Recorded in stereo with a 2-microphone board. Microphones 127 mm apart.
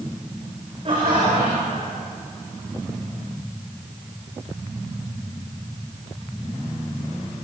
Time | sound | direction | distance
0.8 | laughter | 40° right (ahead or behind) | 6 m